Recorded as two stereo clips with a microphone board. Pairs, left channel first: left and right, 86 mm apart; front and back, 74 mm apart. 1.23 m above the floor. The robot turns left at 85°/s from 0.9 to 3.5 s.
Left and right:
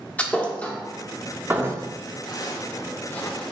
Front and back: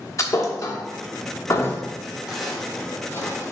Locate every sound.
0.2 s a thud: 25° left, 1.0 m; by 1.8 s 55° right, 1.0 m
2.3 s footsteps: 100° left, 1.8 m; by 3.5 s 15° left, 1.4 m